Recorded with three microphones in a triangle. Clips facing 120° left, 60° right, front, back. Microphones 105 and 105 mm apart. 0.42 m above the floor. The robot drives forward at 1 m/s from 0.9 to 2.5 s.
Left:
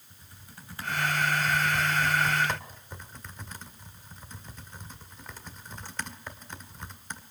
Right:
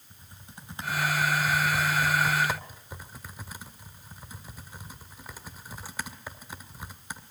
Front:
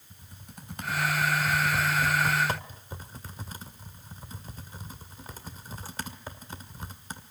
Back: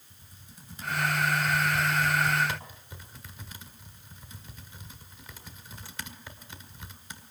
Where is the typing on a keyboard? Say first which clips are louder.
Right 2 dB, front 6 dB; 5° left, 3 m; by 7.2 s 20° left, 1.6 m.